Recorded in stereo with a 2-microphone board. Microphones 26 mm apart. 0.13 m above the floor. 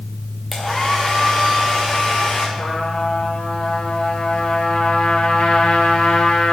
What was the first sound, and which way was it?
A hair dryer, 10° right (ahead or behind).